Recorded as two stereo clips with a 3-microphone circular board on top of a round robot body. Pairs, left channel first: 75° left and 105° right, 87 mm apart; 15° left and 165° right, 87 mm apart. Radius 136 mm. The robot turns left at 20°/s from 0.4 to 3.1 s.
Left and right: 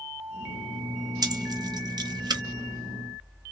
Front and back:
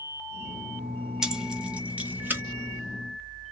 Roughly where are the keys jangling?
Right.